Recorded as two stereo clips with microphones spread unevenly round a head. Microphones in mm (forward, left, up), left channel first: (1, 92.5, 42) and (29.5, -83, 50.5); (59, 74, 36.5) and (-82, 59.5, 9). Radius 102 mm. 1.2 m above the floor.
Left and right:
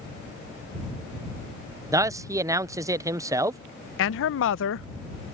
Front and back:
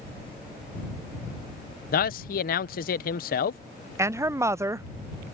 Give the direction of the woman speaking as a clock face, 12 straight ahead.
8 o'clock.